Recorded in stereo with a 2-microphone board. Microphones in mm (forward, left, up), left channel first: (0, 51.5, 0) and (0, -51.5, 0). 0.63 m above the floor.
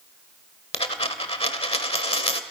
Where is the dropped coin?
70° left (ahead or behind), 1.2 m.